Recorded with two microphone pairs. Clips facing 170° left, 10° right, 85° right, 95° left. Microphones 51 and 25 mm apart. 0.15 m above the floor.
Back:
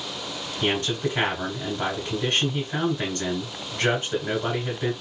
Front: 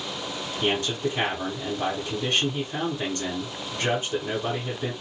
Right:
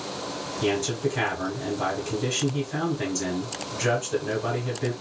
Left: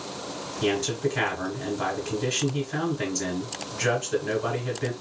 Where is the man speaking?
155° left, 1.5 m.